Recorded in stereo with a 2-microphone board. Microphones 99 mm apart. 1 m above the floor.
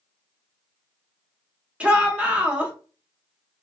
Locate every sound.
1.8 s a shout: 15° right (ahead or behind), 0.7 m